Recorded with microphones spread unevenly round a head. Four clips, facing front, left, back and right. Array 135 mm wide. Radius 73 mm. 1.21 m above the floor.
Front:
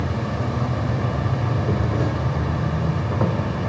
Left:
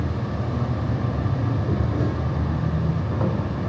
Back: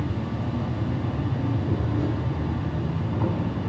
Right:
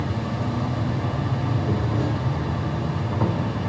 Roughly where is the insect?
Ahead.